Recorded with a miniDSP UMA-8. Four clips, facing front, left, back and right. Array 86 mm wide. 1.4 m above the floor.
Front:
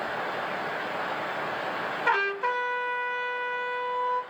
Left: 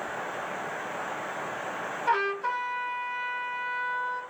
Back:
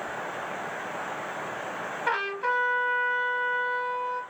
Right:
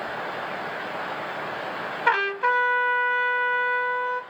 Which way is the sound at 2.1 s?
85° right.